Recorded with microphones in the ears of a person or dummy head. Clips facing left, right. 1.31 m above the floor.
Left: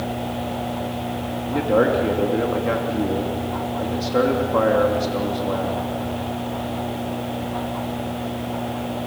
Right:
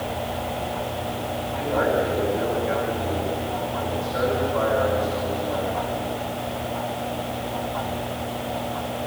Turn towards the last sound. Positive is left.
turn(degrees=85)